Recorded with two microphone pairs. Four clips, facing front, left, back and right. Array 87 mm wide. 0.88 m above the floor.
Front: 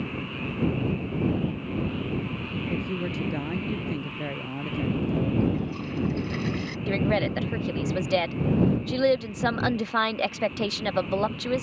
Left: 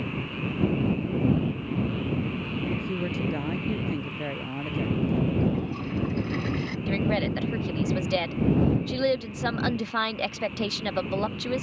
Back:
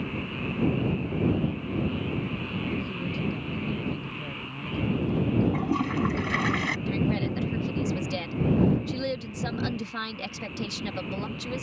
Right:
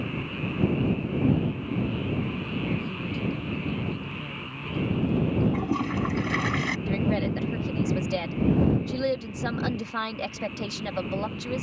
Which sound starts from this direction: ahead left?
A woman speaking, at 2.7 s.